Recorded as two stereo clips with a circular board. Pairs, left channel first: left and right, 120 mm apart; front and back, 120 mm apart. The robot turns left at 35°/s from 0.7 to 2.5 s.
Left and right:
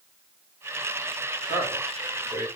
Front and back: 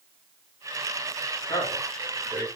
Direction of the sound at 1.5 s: 60° right.